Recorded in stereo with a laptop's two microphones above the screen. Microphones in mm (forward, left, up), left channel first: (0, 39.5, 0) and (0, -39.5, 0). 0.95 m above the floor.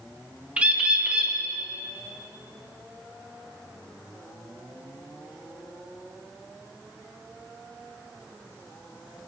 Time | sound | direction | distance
0.6 | a bird | 15° right (ahead or behind) | 0.7 m